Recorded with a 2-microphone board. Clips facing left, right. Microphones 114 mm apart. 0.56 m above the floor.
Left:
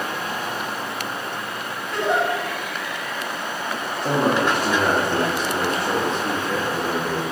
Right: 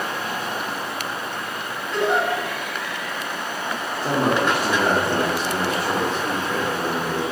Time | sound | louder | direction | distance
1.9 | a giggle | even | 25° right (ahead or behind) | 1.9 m
4.0 | a man speaking | left 1 dB | 10° right (ahead or behind) | 0.7 m